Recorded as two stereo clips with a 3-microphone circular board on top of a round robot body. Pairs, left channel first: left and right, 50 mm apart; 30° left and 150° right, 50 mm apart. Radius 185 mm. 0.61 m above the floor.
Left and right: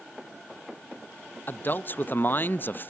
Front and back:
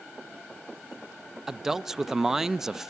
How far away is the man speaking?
About 0.7 m.